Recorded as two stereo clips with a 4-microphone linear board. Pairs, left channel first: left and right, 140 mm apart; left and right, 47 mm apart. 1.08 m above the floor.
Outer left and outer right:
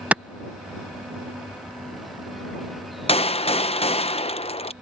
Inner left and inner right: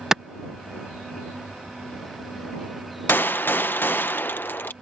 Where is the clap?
10° right (ahead or behind).